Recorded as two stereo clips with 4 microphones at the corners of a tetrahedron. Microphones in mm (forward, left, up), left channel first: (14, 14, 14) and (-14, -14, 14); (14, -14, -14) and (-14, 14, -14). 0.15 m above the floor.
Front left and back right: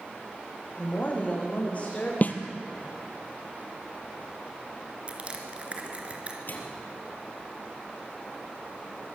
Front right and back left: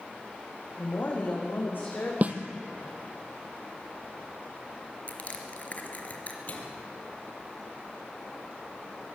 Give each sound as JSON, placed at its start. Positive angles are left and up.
{"t": 0.8, "sound": "a woman speaking", "azimuth_deg": -10, "distance_m": 7.5}
{"t": 2.2, "sound": "a snare drum", "azimuth_deg": 90, "distance_m": 2.0}
{"t": 5.1, "sound": "crushing", "azimuth_deg": -85, "distance_m": 3.0}
{"t": 6.5, "sound": "a microwave", "azimuth_deg": 5, "distance_m": 3.5}